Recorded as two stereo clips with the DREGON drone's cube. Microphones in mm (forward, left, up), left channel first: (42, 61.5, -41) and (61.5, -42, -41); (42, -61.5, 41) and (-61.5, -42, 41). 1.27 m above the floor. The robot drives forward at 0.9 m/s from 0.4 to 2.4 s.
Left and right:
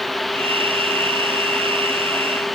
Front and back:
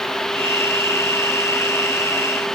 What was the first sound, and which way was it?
Only background noise.